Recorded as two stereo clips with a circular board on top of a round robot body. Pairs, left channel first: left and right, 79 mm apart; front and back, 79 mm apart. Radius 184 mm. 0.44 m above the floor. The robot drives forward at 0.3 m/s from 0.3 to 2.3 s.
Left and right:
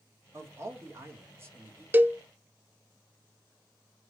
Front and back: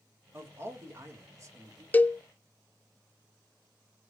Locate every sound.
0.3 s a man speaking: 135° right, 1.5 m; by 1.8 s 145° right, 1.8 m
1.9 s a cowbell: 45° right, 0.5 m; by 2.2 s 65° right, 0.5 m